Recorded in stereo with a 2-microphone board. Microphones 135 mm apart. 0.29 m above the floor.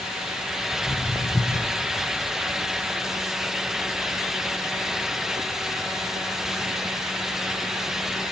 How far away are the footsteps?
About 4 m.